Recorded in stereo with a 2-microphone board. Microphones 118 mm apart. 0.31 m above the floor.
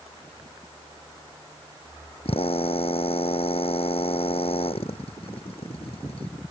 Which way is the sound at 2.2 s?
60° left (ahead or behind).